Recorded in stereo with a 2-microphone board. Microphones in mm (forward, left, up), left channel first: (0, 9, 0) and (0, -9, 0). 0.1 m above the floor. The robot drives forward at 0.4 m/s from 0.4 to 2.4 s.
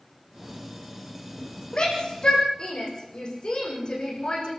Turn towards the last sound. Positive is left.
turn(degrees=55)  # may be behind; listen again after turning